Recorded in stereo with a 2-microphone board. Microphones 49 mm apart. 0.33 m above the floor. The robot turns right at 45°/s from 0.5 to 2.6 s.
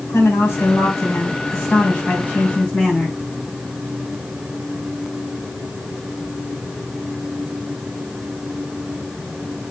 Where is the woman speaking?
70° left, 3 m; by 3.1 s 165° left, 3 m.